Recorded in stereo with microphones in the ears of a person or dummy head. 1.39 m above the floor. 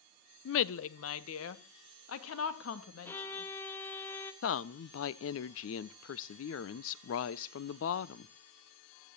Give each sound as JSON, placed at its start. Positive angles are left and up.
{"t": 0.5, "sound": "a woman speaking", "side_deg": 70, "distance_m": 0.7}
{"t": 3.0, "sound": "a violin", "side_deg": 20, "distance_m": 1.7}
{"t": 4.4, "sound": "a woman speaking", "side_deg": 75, "distance_m": 0.8}